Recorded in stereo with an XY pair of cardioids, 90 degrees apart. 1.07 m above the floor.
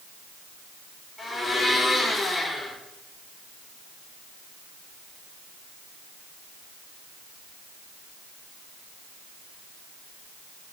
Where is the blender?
45° left, 6.5 m.